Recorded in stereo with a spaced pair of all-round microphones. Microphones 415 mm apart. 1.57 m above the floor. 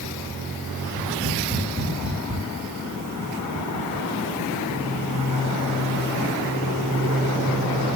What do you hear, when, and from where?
0.8 s tapping: centre (ahead or behind), 2.5 m